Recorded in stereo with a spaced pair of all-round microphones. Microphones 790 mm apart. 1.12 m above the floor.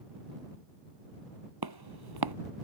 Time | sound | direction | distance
1.6 | footsteps | 30° right (ahead or behind) | ?